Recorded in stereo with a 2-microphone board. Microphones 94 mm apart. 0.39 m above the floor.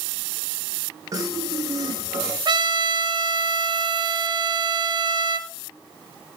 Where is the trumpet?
55° right (ahead or behind), 1.6 m.